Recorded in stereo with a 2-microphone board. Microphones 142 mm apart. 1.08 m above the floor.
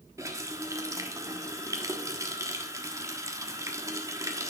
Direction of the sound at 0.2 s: 20° right (ahead or behind).